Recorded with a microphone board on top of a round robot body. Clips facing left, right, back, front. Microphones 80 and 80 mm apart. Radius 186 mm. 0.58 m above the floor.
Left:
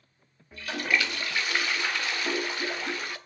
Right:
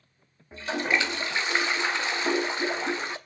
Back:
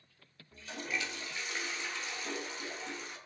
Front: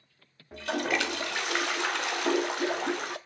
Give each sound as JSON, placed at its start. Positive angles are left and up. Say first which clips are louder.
{"t": 0.5, "sound": "a toilet flushing", "louder": "right 2 dB, front 11 dB", "azimuth_deg": -20, "distance_m": 0.7}